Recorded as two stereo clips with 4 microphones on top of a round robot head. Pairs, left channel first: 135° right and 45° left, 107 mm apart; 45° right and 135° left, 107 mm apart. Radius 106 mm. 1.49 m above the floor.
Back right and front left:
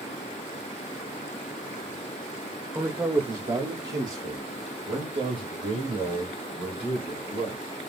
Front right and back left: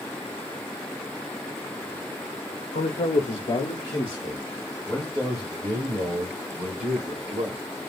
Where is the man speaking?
30° right, 0.9 m; by 7.6 s 60° left, 3 m.